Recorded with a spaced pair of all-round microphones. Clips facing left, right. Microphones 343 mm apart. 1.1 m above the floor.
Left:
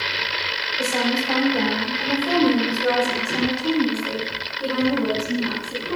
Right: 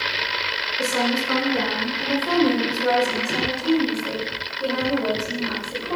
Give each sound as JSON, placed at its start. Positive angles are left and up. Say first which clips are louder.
{"t": 0.8, "sound": "a woman speaking", "louder": "even", "side_deg": -20, "distance_m": 5.5}